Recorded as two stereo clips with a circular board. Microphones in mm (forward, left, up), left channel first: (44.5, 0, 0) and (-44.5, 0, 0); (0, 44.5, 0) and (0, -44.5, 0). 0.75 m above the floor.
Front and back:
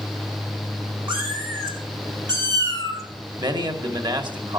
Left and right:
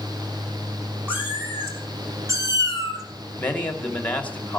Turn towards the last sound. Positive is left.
turn(degrees=160)